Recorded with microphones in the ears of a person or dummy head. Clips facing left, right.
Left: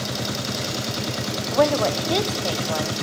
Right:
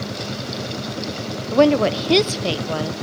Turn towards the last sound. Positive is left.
turn(degrees=-35)  # may be behind; listen again after turning